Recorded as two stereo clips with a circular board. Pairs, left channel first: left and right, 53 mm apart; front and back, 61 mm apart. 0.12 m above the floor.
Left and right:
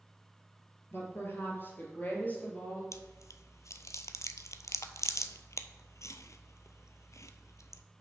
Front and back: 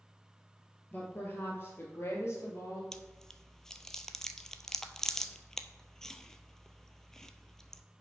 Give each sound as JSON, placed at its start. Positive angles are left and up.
{"t": 0.9, "sound": "a woman speaking", "azimuth_deg": 55, "distance_m": 2.5}
{"t": 2.9, "sound": "chewing", "azimuth_deg": 80, "distance_m": 0.5}